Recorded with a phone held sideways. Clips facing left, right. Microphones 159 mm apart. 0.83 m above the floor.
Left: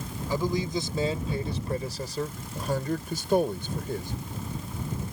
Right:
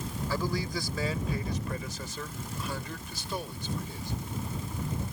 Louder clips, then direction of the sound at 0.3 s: Left 5 dB; 20° left (ahead or behind).